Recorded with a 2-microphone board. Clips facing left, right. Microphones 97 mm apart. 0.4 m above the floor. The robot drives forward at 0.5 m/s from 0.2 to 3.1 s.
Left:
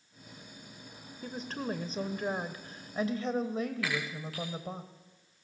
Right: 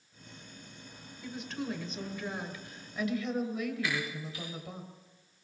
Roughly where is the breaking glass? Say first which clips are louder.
Even; left.